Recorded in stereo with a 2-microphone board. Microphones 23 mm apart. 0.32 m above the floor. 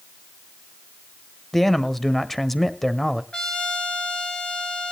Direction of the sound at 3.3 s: 40° left (ahead or behind).